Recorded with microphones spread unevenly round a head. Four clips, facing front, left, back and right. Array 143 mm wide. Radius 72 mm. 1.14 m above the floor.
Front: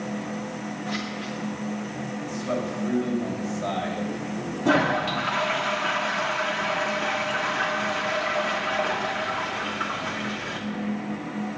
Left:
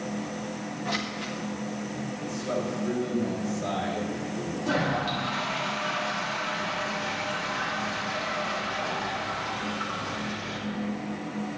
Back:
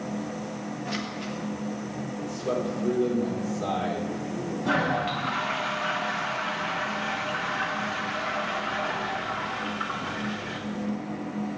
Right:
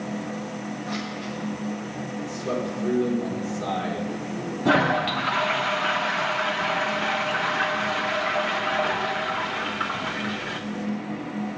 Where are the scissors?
120° left, 1.6 m.